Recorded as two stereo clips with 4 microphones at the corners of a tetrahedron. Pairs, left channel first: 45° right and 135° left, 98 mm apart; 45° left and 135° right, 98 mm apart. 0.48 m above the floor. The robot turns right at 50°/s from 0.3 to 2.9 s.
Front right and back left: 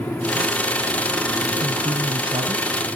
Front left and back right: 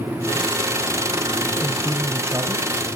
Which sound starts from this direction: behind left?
A man speaking, at 1.6 s.